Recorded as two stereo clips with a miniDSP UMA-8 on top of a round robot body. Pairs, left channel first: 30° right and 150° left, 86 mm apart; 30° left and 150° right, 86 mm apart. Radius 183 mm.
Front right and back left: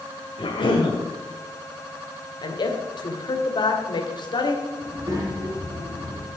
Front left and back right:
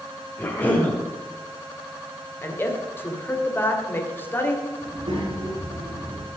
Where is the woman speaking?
30° right, 2.5 m.